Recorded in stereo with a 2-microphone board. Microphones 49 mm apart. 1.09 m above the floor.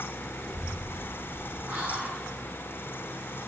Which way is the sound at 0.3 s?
15° right (ahead or behind).